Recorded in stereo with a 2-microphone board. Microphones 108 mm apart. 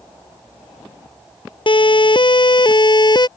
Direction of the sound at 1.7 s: 50° left (ahead or behind).